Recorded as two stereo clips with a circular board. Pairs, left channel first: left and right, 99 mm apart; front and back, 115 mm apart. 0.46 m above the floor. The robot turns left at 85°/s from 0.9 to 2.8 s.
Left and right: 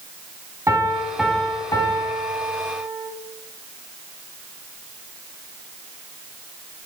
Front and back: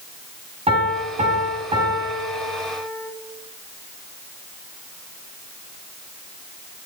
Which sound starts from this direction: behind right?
A piano, at 0.7 s.